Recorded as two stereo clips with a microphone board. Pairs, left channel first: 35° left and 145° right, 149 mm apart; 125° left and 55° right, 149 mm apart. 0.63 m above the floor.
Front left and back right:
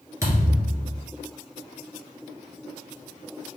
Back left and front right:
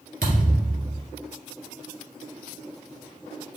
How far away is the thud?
About 1.9 m.